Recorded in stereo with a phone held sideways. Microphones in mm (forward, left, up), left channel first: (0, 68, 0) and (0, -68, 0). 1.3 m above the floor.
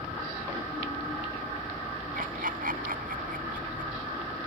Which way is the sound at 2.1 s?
85° right.